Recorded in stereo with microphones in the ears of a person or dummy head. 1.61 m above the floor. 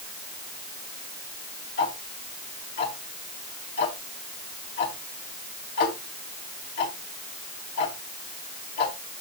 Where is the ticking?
60° left (ahead or behind), 3 m.